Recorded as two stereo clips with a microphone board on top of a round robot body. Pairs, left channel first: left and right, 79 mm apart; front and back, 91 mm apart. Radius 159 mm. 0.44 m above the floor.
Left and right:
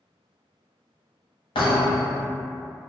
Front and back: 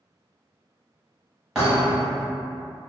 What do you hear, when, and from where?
1.6 s a thud: 95° left, 0.9 m